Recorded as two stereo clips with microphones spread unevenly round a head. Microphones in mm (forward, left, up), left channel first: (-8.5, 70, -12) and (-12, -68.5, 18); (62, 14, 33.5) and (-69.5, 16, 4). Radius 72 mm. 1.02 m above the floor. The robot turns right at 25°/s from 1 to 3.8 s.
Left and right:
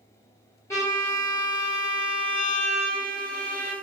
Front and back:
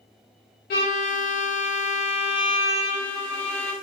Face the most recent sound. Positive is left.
turn(degrees=90)